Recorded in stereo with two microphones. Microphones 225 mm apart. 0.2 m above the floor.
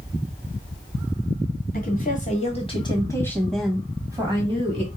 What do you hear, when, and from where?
1.7 s a woman speaking: 40° left (ahead or behind), 1.5 m; by 4.9 s 30° right (ahead or behind), 1.3 m